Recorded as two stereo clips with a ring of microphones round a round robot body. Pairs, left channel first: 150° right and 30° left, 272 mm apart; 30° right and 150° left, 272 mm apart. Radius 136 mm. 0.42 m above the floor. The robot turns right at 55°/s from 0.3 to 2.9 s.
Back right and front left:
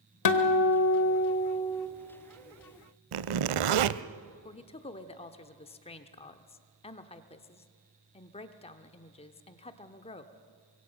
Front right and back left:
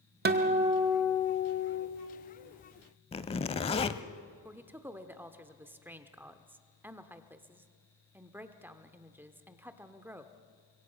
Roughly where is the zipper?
Ahead left.